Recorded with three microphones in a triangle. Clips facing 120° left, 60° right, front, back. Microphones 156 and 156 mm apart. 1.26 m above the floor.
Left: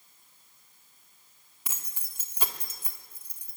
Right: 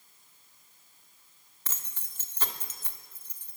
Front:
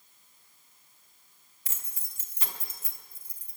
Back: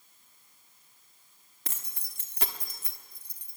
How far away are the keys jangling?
About 1.8 m.